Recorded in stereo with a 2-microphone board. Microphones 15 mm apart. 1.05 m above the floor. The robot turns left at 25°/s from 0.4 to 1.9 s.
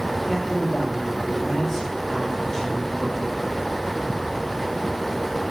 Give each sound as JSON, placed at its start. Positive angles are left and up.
{"t": 0.3, "sound": "a man speaking", "azimuth_deg": -175, "distance_m": 2.5}